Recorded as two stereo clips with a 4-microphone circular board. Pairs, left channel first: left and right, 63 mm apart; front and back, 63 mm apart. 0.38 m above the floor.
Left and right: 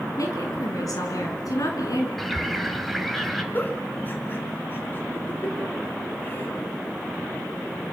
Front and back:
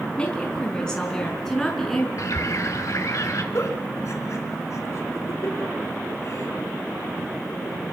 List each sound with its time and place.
0.2 s a woman speaking: 70° left, 4.5 m; by 2.1 s 85° left, 6 m
2.2 s a bird: straight ahead, 2.5 m
3.5 s a giggle: 35° left, 4 m